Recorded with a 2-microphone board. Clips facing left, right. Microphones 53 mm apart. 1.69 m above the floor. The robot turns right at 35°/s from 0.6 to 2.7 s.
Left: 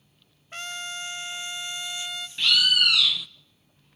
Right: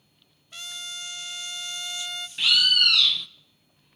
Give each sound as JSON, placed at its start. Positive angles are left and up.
{"t": 0.5, "sound": "a trumpet", "azimuth_deg": 125, "distance_m": 0.7}
{"t": 2.4, "sound": "a bird", "side_deg": -5, "distance_m": 0.7}